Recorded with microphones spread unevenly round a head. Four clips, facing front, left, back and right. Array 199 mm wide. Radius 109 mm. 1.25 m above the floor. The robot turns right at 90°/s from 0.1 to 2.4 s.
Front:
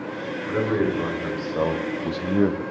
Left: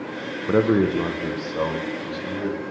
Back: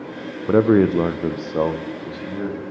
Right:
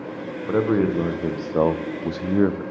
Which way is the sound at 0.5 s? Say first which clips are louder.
Left 1 dB, back 8 dB; 140° left.